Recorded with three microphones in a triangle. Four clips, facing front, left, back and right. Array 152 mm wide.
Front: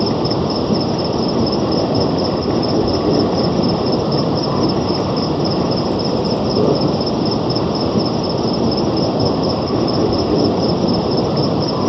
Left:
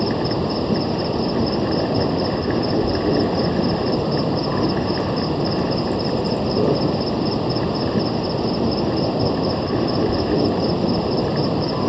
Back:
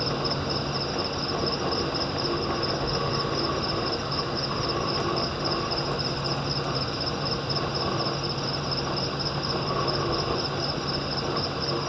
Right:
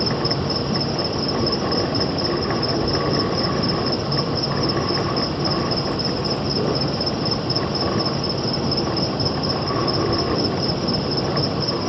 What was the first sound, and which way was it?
An insect, 20° left.